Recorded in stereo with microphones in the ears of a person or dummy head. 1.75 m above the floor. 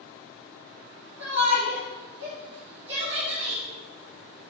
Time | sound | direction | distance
1.2 | a shout | 65° right (ahead or behind) | 4 m